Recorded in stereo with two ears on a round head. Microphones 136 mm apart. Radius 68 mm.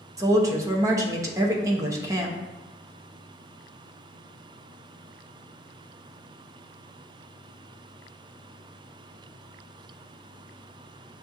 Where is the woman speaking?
20° right (ahead or behind), 0.7 m.